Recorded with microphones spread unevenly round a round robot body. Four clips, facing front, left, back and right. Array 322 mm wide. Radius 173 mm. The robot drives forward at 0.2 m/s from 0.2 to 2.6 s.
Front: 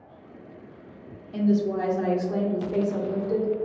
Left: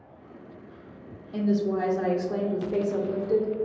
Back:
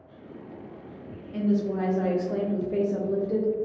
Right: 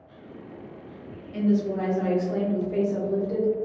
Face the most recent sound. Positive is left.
turn(degrees=135)